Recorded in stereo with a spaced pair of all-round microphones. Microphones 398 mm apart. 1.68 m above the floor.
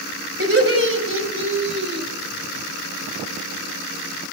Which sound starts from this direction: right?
Laughter, at 0.4 s.